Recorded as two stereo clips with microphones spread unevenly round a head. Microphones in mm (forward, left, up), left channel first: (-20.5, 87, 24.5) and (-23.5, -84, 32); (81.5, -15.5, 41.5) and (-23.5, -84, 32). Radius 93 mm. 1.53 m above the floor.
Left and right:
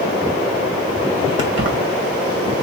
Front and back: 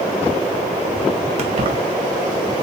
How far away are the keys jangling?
About 1.5 m.